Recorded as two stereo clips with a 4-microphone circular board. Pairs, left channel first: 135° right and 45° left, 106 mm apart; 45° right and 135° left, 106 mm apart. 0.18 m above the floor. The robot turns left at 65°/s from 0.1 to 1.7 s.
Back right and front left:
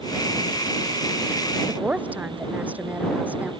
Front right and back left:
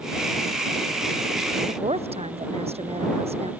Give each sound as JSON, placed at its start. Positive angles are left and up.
{"t": 1.7, "sound": "a woman speaking", "azimuth_deg": 120}